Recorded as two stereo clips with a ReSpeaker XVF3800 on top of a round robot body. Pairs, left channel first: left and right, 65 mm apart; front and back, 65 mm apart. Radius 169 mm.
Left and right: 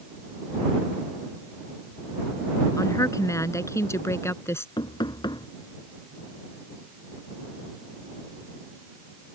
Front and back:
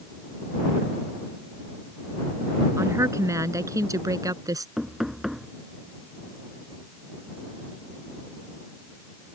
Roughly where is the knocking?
Left.